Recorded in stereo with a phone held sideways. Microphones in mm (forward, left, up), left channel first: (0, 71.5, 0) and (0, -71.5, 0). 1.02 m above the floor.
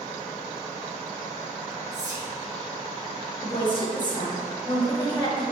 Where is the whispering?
25° right (ahead or behind), 1.5 m.